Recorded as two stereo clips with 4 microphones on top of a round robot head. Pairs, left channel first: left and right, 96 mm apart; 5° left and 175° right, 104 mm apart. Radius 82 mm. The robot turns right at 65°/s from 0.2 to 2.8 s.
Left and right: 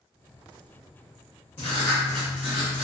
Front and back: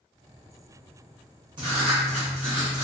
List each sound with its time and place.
1.6 s writing: 140° left, 1.0 m; by 2.9 s 140° right, 1.0 m